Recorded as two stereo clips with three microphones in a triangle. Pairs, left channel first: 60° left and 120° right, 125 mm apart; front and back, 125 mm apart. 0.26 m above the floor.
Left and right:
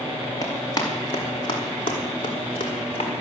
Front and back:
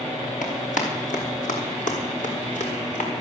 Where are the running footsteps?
Straight ahead, 5.5 m; by 3.1 s 20° left, 5.5 m.